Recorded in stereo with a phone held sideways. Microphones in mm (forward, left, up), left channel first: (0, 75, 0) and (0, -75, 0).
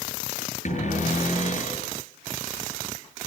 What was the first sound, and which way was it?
A cupboard door, 50° left (ahead or behind).